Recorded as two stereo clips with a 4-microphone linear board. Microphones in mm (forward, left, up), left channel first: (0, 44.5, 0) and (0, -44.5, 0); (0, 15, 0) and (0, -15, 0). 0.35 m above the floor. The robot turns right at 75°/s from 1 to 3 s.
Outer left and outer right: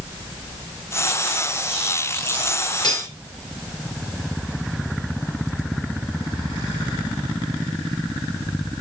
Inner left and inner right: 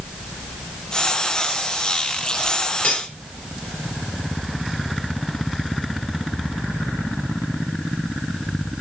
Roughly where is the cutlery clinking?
Left.